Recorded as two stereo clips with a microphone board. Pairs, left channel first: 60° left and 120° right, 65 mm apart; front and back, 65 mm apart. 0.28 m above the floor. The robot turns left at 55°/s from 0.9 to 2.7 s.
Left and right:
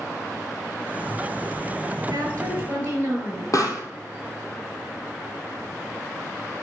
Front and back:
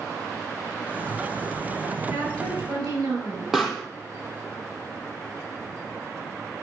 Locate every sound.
2.1 s a woman speaking: 145° right, 5 m; by 3.4 s straight behind, 5 m
3.5 s a pop: 95° left, 1.9 m